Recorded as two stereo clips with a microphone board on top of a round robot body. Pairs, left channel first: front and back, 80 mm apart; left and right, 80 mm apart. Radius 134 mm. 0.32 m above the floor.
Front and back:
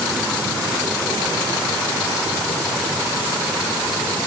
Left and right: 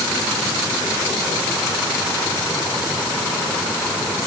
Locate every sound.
Only background noise.